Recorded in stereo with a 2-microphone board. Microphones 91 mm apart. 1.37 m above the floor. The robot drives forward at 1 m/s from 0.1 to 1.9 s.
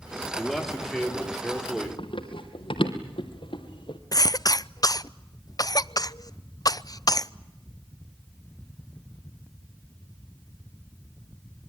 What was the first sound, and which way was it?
A man speaking, 5° left (ahead or behind).